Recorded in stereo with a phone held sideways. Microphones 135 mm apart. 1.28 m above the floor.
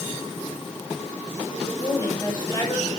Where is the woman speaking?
25° left (ahead or behind), 5 m.